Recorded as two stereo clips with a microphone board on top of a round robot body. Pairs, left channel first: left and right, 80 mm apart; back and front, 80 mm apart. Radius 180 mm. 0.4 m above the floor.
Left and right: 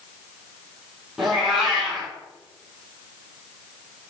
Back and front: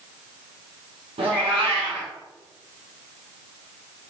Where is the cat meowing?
5° right, 2 m.